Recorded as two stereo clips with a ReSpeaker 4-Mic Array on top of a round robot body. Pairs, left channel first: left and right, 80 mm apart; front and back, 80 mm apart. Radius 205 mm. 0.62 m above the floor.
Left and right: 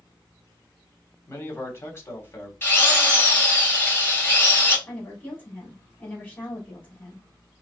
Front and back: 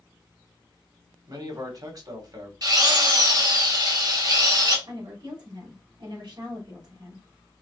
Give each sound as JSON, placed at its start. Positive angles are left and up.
{"t": 1.3, "sound": "a man speaking", "azimuth_deg": 145, "distance_m": 2.5}
{"t": 2.6, "sound": "a drill", "azimuth_deg": 150, "distance_m": 2.5}
{"t": 4.9, "sound": "a woman speaking", "azimuth_deg": 155, "distance_m": 2.5}